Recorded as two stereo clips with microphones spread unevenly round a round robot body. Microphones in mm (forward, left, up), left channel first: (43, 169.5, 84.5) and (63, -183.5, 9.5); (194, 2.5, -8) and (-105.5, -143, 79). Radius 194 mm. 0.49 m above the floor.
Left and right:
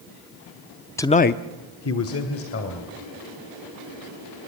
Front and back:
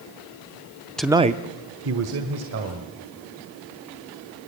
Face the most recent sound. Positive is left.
turn(degrees=150)